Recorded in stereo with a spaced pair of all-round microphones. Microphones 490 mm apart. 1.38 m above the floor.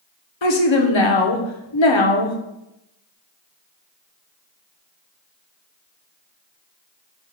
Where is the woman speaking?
65° left (ahead or behind), 0.8 m.